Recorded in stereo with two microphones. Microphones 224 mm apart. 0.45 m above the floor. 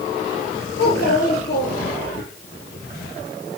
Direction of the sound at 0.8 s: 50° left (ahead or behind).